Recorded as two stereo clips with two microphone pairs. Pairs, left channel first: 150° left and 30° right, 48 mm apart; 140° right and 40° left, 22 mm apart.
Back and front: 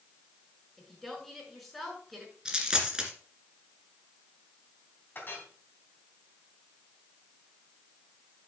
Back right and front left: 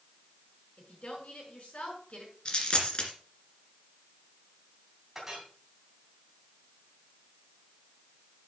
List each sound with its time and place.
0.8 s a woman speaking: 120° right, 5.5 m
2.5 s a dropped coin: 105° right, 2 m
5.2 s a clink: 110° left, 3.5 m